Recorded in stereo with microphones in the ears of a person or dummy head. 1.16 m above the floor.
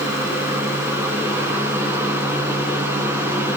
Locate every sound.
0.0 s a fan: 15° right (ahead or behind), 3 m